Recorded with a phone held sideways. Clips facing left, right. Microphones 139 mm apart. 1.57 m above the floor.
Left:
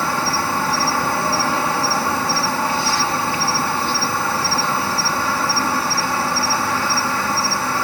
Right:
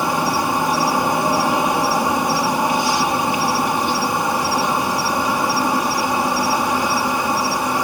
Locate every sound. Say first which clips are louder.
0.0 s an insect: right 2 dB; 15° right (ahead or behind)